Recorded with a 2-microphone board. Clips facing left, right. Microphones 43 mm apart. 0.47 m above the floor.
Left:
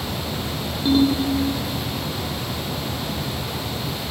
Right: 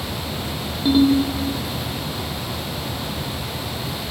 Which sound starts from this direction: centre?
A ringtone, at 0.8 s.